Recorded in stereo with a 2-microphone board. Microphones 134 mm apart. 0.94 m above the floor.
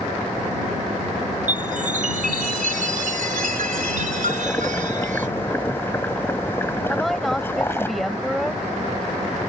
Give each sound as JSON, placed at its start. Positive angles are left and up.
{"t": 1.5, "sound": "a chime", "side_deg": -85}
{"t": 4.3, "sound": "boiling", "side_deg": 15}
{"t": 6.9, "sound": "a woman speaking", "side_deg": 0}